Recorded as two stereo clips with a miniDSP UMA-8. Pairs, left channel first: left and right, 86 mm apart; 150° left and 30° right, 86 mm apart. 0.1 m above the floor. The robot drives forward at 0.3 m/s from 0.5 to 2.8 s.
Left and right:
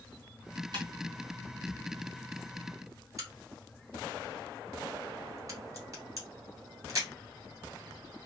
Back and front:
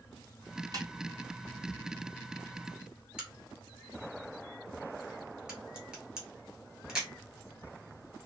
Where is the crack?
110° right, 1.6 m.